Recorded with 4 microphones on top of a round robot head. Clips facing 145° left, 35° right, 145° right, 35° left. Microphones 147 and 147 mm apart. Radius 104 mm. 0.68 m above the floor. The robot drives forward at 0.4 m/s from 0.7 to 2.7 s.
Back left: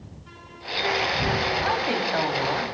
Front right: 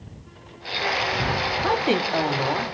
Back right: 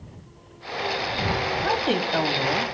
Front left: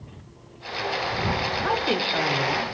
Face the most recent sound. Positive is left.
turn(degrees=-115)